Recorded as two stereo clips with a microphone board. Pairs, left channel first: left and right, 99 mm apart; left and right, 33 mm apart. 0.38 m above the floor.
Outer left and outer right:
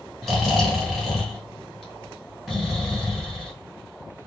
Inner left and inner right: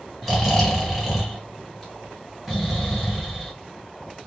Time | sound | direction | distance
0.2 | snoring | 5° left (ahead or behind) | 2.5 m